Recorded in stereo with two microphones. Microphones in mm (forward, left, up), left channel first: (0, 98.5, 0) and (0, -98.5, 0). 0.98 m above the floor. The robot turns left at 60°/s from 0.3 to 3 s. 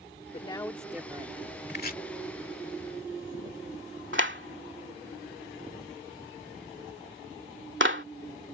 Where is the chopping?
55° left (ahead or behind); by 2.0 s 40° left (ahead or behind).